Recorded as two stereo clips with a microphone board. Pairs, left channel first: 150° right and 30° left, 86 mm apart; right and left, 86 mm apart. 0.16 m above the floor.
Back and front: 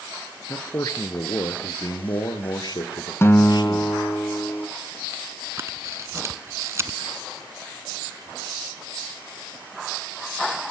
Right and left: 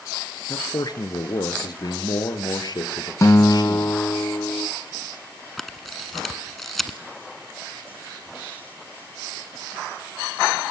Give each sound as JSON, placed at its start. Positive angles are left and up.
{"t": 0.5, "sound": "a man speaking", "azimuth_deg": -100, "distance_m": 2.0}
{"t": 3.2, "sound": "a guitar", "azimuth_deg": -110, "distance_m": 1.0}
{"t": 5.6, "sound": "a camera shutter", "azimuth_deg": -5, "distance_m": 1.4}